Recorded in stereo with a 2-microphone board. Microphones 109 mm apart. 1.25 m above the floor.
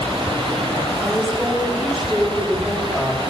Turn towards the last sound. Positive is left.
turn(degrees=-5)  # may be behind; listen again after turning